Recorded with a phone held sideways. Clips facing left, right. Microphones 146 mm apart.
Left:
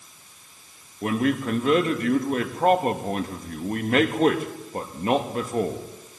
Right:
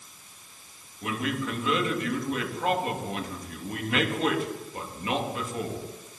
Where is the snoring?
I don't hear snoring.